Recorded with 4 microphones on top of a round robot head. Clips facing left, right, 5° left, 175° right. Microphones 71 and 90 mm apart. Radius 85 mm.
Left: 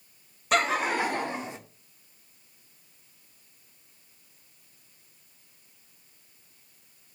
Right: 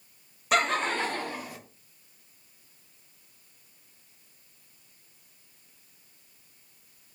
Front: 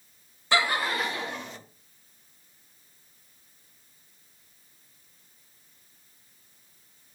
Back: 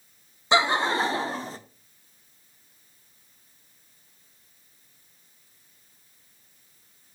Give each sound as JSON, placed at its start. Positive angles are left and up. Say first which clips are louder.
{"t": 0.5, "sound": "laughter", "louder": "left 1 dB, back 4 dB", "azimuth_deg": -175, "distance_m": 0.7}